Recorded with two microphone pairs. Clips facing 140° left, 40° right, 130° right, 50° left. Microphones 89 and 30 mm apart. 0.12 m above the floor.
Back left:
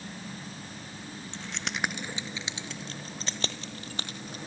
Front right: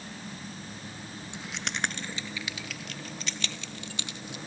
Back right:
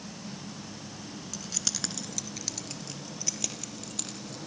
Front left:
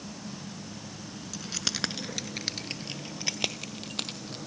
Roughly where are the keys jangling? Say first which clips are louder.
Even, front left 4 dB; ahead.